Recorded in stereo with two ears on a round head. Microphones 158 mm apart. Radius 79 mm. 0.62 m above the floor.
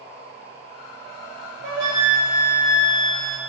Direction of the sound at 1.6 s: 50° right (ahead or behind).